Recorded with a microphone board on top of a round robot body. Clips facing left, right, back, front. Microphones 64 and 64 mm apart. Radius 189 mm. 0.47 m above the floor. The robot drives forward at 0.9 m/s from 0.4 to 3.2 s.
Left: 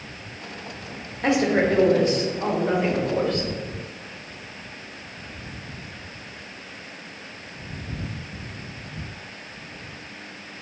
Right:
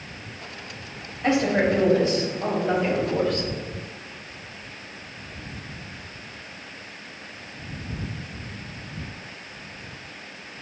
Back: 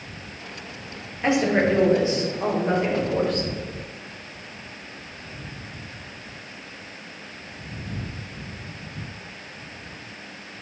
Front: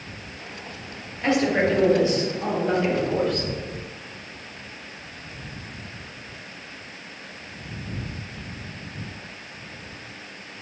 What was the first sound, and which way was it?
A woman speaking, 105° left.